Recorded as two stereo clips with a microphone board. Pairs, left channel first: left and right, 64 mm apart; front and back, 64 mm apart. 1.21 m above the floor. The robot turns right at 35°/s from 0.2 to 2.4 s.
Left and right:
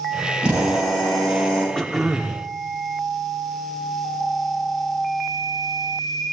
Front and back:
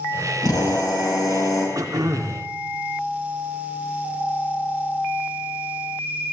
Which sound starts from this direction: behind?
Throat clearing, at 1.8 s.